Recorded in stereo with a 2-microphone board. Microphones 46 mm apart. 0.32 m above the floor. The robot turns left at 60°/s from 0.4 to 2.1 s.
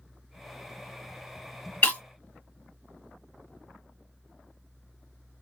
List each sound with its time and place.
1.8 s breaking glass: 30° left (ahead or behind), 1.6 m; by 2.0 s 40° left (ahead or behind), 1.6 m